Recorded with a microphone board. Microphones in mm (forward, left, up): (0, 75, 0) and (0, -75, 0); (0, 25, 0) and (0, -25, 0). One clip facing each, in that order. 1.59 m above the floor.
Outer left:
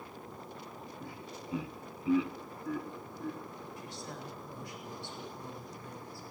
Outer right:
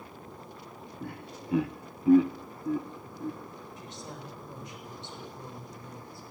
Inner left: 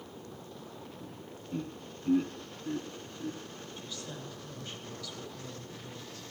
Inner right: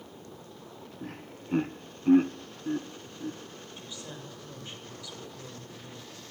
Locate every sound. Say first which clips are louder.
1.0 s laughter: outer right 7 dB, inner right 3 dB; 60° right (ahead or behind), 0.9 m; by 3.4 s 10° right (ahead or behind), 1.2 m
3.8 s a woman speaking: outer right 2 dB, even; 20° right (ahead or behind), 8.5 m